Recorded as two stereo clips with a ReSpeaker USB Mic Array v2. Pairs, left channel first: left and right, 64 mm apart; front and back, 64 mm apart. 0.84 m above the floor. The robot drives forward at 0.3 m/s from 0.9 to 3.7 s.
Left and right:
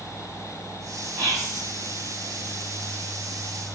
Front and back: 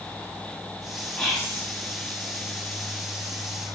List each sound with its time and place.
1.2 s whispering: 65° right, 1.5 m; by 1.6 s 70° right, 1.4 m